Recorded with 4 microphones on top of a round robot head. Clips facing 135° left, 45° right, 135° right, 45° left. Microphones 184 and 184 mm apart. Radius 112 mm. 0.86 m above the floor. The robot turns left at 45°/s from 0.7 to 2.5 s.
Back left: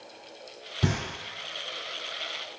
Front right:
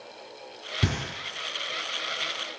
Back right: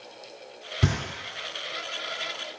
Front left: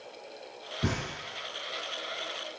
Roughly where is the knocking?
Behind right.